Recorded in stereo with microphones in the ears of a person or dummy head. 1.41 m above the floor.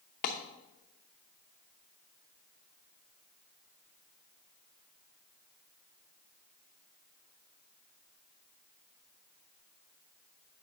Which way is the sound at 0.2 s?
45° left (ahead or behind).